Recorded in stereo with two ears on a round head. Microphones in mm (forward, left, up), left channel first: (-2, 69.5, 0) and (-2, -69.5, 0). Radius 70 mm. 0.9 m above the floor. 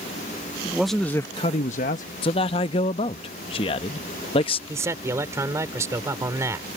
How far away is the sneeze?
I don't hear a sneeze.